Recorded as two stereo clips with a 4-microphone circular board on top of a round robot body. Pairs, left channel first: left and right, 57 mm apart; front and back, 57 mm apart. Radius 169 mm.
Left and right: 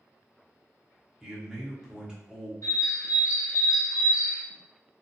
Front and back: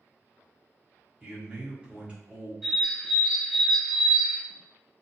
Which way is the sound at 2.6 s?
95° left.